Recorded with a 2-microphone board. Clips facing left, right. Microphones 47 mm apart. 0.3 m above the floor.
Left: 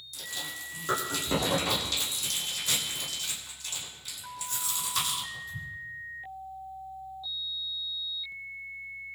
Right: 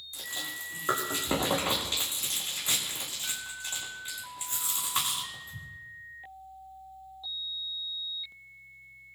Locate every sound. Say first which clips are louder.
0.1 s chewing: right 1 dB; 25° right (ahead or behind), 7.5 m